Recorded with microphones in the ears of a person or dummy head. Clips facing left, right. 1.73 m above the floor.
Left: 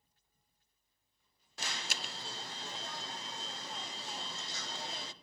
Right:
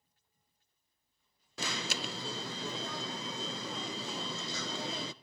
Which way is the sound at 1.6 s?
55° right (ahead or behind).